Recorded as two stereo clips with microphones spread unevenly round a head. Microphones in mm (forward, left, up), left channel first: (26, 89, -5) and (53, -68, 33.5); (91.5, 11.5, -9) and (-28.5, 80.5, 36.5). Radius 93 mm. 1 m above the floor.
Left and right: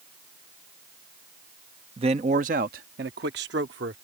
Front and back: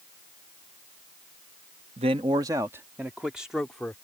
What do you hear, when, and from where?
2.0 s a man speaking: 145° right; by 4.0 s 115° right